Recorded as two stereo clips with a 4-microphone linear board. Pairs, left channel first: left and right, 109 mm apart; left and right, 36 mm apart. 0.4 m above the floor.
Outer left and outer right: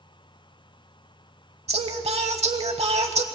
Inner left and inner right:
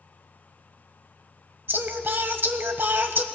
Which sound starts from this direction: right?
Singing, at 1.7 s.